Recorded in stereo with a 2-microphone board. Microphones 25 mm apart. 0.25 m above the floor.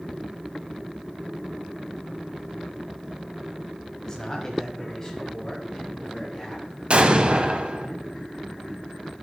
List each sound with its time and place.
4.0 s a man speaking: 25° left (ahead or behind), 1.1 m; by 6.7 s 15° left (ahead or behind), 2.5 m
6.9 s an explosion: 45° right (ahead or behind), 0.7 m